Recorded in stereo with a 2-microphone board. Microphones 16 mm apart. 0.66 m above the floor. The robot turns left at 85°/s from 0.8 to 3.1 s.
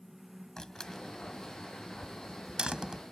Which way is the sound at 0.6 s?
40° left (ahead or behind).